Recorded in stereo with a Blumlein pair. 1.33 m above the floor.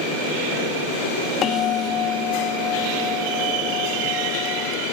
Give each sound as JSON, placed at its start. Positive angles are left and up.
{"t": 1.4, "sound": "a bell", "azimuth_deg": 30}